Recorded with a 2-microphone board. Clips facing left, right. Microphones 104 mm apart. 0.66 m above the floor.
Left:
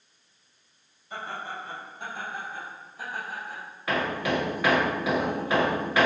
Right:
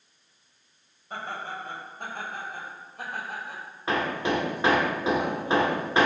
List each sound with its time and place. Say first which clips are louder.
1.1 s laughter: right 1 dB; 45° right (ahead or behind), 4 m; by 3.6 s 65° right (ahead or behind), 3.5 m
3.9 s hammering: right 1 dB; 25° right (ahead or behind), 1.9 m